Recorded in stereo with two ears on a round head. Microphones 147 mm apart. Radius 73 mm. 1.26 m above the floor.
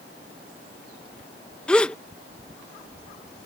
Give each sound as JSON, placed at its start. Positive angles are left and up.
{"t": 1.7, "sound": "a gasp", "side_deg": 5}